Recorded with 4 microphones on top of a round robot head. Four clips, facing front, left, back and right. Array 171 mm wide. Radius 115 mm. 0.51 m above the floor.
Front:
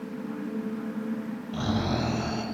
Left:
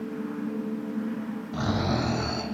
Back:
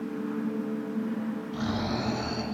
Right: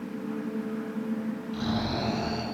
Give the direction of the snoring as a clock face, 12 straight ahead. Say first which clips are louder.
Left 4 dB, front 4 dB; 10 o'clock.